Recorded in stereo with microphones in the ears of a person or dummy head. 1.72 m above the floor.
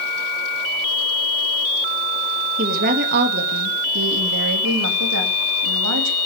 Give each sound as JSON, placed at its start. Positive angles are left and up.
{"t": 2.6, "sound": "a woman speaking", "side_deg": -45, "distance_m": 2.5}